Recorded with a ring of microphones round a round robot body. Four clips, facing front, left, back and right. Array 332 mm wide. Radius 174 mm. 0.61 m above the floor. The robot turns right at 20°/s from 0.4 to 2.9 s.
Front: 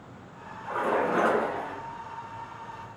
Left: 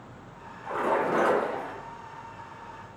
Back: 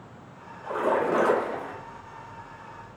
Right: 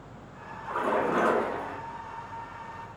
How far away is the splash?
About 2.0 m.